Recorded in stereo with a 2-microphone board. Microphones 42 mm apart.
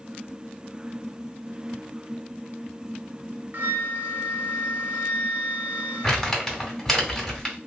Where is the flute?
50° right (ahead or behind), 0.7 m.